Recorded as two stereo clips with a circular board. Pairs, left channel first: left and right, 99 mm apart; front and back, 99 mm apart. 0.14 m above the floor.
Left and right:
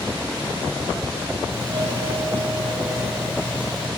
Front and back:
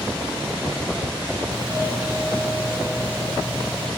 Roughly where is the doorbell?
Behind right.